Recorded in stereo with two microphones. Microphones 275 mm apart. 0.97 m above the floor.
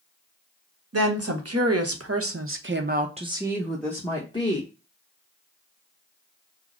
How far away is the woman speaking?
About 1.3 m.